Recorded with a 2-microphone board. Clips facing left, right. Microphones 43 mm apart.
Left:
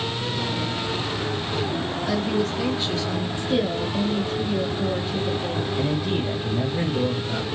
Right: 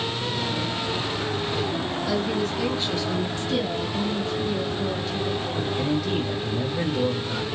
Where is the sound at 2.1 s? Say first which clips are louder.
Left 2 dB; 25° left (ahead or behind), 1.4 m; by 3.3 s 5° right (ahead or behind), 1.5 m.